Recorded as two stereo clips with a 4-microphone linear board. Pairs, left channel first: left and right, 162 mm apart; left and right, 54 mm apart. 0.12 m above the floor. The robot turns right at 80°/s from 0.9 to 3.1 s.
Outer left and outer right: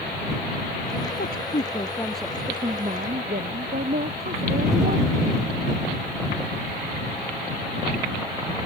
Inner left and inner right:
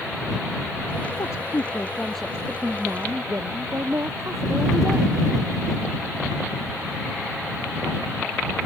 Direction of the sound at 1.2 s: 100° left.